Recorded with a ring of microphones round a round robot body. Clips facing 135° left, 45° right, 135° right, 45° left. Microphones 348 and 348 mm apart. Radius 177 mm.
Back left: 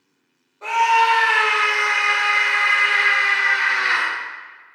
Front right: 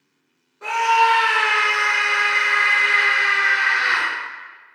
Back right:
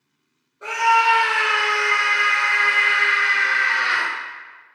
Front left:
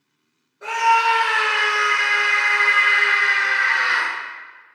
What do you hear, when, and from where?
0.6 s a scream: 55° right, 0.8 m